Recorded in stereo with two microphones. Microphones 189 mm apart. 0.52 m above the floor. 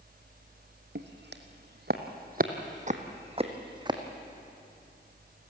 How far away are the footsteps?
About 1.6 m.